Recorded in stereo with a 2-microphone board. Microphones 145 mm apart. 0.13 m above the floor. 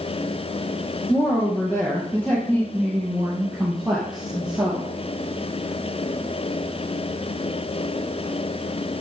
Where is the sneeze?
No sneeze in this recording.